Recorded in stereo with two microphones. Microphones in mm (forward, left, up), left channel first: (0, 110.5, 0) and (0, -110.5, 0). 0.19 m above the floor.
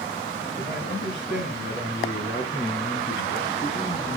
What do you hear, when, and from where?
0.6 s a man speaking: 55° left (ahead or behind), 3.5 m; by 4.2 s 25° left (ahead or behind), 1.5 m